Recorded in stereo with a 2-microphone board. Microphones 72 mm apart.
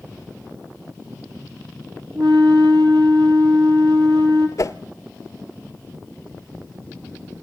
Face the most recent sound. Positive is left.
turn(degrees=55)  # may be behind; listen again after turning